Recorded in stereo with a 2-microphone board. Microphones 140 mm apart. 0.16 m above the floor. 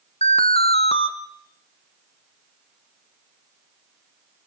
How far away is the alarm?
About 1.5 m.